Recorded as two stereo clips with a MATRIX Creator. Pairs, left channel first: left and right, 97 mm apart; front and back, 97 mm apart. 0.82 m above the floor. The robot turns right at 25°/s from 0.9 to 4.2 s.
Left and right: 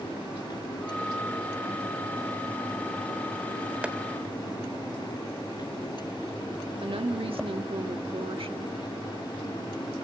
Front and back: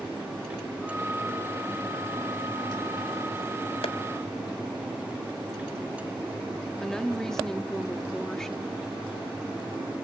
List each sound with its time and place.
3.8 s tapping: 15° right, 1.2 m; by 4.0 s 10° right, 1.2 m
6.8 s a woman speaking: 85° right, 1.3 m